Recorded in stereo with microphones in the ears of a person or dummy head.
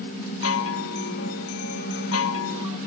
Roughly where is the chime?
Left.